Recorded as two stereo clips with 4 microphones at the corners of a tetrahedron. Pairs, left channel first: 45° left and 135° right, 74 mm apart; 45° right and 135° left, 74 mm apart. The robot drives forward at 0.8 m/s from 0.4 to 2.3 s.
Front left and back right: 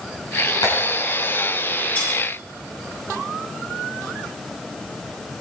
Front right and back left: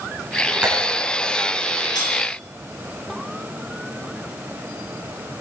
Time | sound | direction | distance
0.6 | tapping | 55° left | 5 m
1.9 | cutlery clinking | 20° right | 8.5 m